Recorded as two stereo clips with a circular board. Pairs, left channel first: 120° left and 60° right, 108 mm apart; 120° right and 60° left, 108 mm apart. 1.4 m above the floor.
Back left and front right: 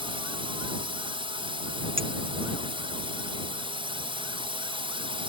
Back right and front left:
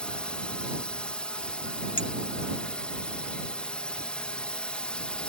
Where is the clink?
85° right.